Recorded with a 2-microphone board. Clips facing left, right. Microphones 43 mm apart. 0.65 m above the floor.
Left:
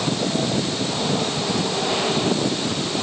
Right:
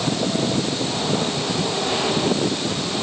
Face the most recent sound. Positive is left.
No sound to turn to.